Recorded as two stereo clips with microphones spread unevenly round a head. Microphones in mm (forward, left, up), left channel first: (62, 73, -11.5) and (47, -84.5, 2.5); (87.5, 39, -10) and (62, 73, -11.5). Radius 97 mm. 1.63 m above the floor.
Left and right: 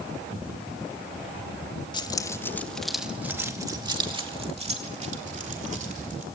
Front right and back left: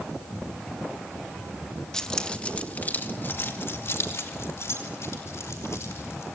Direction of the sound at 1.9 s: 25° left.